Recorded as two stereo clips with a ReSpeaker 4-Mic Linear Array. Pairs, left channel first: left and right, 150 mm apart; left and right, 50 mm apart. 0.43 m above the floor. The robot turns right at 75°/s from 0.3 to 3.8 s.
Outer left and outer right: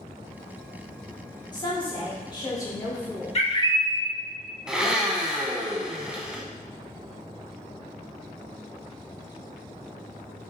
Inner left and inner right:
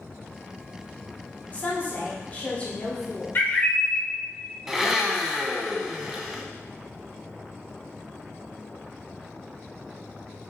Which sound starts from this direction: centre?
A blender, at 4.7 s.